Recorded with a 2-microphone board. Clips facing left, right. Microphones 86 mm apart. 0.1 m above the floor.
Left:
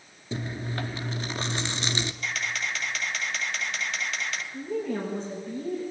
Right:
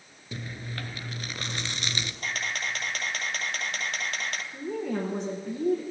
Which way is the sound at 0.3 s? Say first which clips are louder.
Left 6 dB; 25° left (ahead or behind).